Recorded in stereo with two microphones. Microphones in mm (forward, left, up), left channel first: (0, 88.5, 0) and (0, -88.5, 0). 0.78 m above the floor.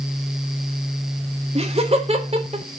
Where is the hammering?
No hammering in this recording.